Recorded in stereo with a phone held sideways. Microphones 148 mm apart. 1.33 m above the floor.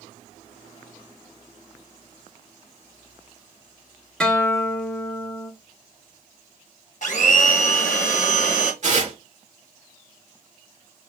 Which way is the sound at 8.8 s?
50° right (ahead or behind).